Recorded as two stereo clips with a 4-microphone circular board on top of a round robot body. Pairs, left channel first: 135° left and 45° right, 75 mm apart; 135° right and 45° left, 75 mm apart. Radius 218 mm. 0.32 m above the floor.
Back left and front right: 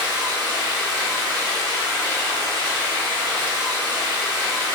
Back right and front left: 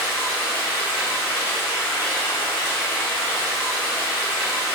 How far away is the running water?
About 1.6 m.